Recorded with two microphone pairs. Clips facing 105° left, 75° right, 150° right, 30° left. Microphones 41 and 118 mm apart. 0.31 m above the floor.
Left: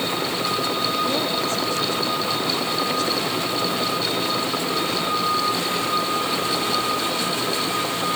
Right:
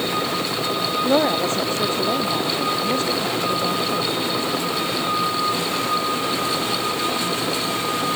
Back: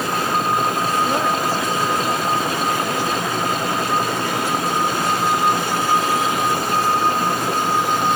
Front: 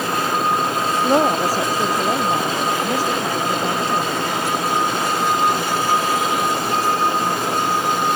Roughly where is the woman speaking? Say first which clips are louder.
Right 4 dB, front 3 dB; ahead right.